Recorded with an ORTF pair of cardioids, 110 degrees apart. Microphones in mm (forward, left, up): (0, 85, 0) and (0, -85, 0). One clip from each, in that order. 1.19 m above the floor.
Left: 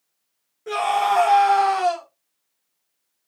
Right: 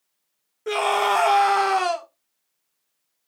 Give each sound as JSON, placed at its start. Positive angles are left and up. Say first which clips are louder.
{"t": 0.7, "sound": "a scream", "louder": "even", "azimuth_deg": -35, "distance_m": 1.7}